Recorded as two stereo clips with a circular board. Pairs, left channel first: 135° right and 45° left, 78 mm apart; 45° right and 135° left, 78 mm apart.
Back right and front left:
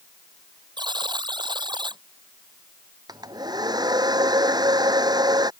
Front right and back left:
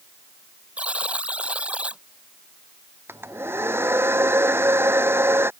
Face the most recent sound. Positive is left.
turn(degrees=75)